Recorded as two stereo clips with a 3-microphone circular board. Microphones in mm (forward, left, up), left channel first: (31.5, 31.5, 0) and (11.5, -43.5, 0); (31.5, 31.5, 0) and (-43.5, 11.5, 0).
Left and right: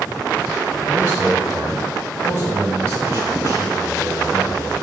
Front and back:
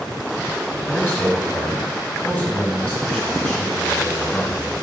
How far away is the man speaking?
About 2.5 m.